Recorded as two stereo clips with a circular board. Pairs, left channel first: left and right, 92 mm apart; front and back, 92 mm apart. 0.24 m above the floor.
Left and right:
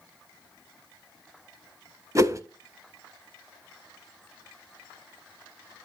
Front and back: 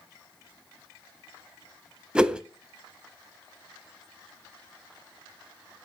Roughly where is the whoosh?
Right.